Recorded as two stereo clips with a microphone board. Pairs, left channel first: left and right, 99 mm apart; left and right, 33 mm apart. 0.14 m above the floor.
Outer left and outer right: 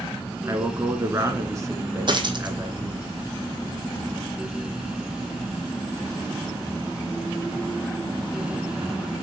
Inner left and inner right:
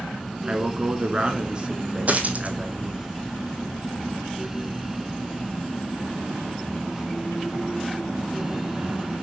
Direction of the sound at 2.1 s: 50° right (ahead or behind).